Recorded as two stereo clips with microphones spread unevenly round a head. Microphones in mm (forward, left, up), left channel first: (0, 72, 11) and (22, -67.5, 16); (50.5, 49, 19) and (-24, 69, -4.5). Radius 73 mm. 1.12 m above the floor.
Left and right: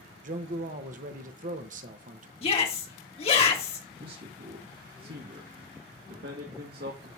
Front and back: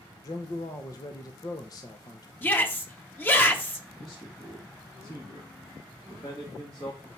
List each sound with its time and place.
0.2 s a man speaking: 75° right, 1.0 m
2.4 s a shout: 50° left, 2.5 m
4.0 s a man speaking: 70° right, 1.9 m